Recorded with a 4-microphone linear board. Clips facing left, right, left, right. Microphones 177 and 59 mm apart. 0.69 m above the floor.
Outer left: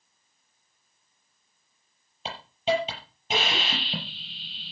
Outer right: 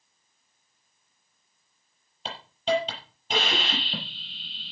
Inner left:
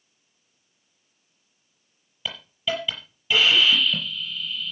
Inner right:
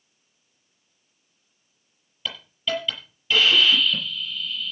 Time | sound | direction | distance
2.2 | a hiss | 10° left (ahead or behind) | 6.5 m